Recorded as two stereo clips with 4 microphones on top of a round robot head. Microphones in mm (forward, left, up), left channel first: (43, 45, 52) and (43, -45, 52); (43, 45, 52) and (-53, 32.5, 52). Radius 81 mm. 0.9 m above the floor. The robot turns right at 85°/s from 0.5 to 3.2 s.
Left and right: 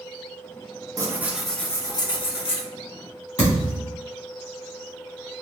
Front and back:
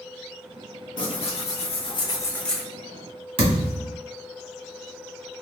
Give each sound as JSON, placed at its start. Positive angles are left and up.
{"t": 1.0, "sound": "tearing paper", "azimuth_deg": -40, "distance_m": 1.0}
{"t": 3.4, "sound": "a thud", "azimuth_deg": 160, "distance_m": 1.3}